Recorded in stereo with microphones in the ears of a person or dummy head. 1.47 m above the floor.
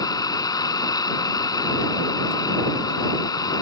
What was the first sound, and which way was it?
An engine running, 25° left (ahead or behind).